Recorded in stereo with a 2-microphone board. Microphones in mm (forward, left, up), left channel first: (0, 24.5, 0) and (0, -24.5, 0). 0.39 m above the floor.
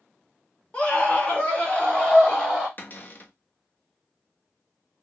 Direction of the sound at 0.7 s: 25° left (ahead or behind).